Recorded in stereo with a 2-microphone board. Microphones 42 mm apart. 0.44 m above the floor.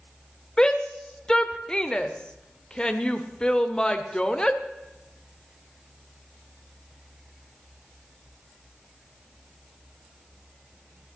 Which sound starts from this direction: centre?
A shout, at 0.6 s.